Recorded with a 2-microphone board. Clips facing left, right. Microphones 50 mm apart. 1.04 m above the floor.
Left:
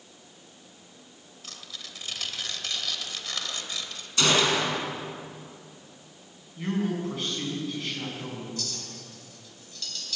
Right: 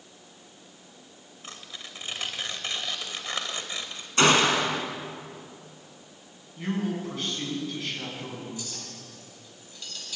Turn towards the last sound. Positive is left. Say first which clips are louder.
# left 1 dB
turn(degrees=-15)  # may be behind; listen again after turning